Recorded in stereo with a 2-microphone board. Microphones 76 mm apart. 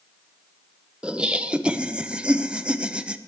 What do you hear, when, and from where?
1.0 s laughter: 15° right (ahead or behind), 0.8 m